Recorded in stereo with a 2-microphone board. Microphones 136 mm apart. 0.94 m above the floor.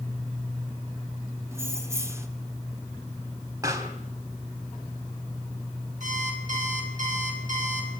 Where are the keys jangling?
20° right (ahead or behind), 1.8 m.